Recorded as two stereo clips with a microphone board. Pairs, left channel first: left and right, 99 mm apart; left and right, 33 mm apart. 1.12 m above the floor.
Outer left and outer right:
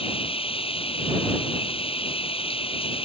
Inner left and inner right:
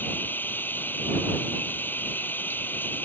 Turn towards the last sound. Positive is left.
turn(degrees=70)  # may be behind; listen again after turning